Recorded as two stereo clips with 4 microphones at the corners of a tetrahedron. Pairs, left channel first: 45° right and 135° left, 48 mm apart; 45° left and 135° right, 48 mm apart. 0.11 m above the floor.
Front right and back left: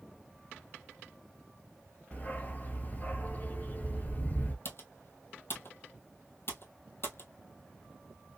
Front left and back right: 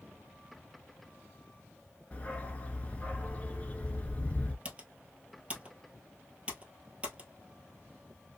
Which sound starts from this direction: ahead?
A dog barking, at 2.1 s.